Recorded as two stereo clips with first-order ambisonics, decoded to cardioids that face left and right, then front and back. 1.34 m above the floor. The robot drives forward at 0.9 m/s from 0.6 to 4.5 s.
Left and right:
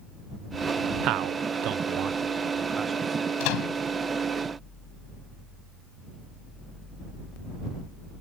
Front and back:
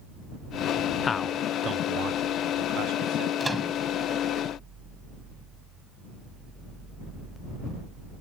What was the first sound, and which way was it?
A man speaking, 60° right.